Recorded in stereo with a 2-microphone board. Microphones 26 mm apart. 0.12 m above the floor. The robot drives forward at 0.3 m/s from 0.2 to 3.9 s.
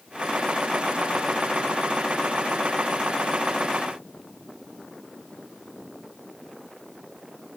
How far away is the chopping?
I don't hear chopping.